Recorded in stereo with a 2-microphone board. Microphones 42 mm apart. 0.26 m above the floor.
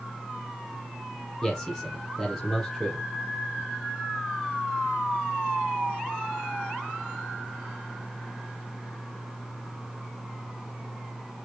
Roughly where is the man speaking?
Centre.